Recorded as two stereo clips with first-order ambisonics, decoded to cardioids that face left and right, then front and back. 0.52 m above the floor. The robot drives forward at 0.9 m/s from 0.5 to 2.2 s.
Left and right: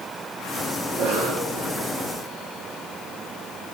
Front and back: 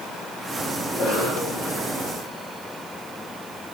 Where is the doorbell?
No doorbell in this recording.